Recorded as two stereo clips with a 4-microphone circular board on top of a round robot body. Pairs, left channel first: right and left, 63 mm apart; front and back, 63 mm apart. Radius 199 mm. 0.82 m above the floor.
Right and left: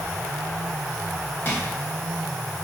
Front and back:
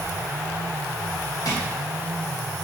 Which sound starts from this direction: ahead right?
A drawer, at 1.4 s.